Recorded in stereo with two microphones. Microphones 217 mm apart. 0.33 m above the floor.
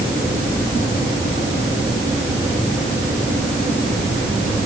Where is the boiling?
I don't hear boiling.